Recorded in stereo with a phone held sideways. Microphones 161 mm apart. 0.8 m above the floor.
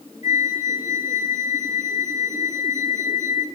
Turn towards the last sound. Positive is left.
turn(degrees=50)  # may be behind; listen again after turning